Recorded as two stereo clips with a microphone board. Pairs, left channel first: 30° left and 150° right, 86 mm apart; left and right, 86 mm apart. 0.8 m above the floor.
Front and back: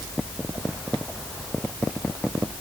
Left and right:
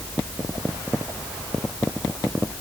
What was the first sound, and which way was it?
Only background noise.